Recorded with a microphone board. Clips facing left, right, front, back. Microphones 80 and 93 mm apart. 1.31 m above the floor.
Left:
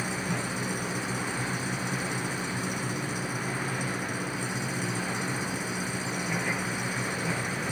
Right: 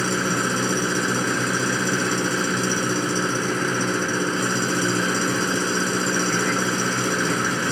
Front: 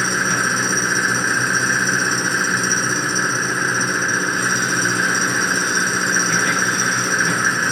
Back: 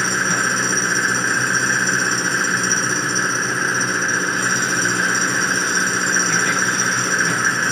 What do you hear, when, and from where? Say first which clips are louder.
0.0 s an engine running: right 9 dB, even; 90° right